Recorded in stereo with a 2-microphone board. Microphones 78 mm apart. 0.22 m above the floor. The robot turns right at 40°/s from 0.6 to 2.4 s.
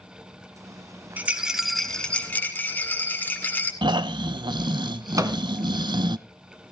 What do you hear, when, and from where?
1.2 s a rattle: 25° right, 2 m; by 3.7 s 25° left, 2 m
3.8 s snoring: 70° right (ahead or behind), 0.5 m
5.2 s a microwave: 45° right (ahead or behind), 1.5 m